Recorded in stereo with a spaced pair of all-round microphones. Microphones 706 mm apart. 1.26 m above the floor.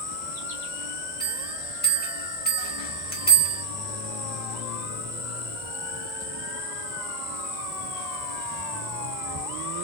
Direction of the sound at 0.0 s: 65° right (ahead or behind).